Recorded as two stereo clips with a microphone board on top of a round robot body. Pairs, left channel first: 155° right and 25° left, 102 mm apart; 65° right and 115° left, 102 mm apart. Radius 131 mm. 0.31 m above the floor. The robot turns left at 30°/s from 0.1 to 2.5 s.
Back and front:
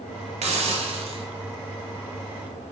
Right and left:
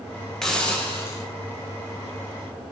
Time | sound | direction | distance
0.4 | a hiss | 20° left | 0.8 m